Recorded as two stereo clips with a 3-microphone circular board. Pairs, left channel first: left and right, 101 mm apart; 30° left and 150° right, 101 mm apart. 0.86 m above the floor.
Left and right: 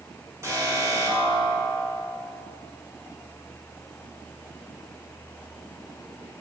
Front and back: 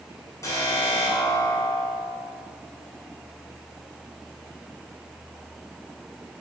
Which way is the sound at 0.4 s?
30° right.